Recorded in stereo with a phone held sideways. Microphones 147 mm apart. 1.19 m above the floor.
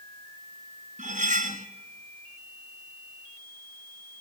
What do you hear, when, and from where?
1.0 s cutlery clinking: 60° right (ahead or behind), 1.0 m